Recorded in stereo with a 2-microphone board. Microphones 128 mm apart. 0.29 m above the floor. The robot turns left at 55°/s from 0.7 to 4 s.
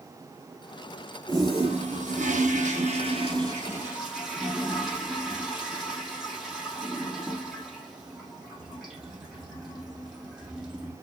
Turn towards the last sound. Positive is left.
turn(degrees=-175)